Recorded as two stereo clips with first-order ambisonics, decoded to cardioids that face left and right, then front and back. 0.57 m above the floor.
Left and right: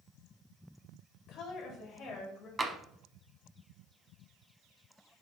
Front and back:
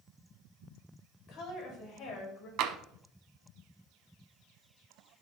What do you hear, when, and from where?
1.3 s a woman speaking: 35° left, 2.5 m; by 2.5 s 25° left, 3 m
2.6 s tapping: 160° right, 0.6 m